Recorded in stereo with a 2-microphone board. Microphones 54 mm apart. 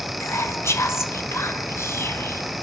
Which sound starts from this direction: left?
Whispering, at 0.2 s.